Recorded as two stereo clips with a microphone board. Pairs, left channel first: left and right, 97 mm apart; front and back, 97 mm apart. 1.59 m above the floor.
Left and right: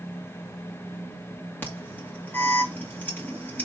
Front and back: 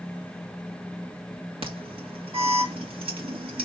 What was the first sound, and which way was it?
An alarm, 160° left.